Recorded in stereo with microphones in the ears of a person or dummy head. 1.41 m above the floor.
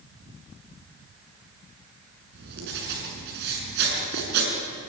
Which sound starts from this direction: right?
Writing, at 2.3 s.